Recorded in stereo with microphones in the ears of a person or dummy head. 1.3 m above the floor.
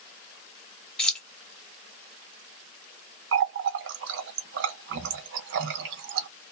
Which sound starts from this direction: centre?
Keys jangling, at 1.0 s.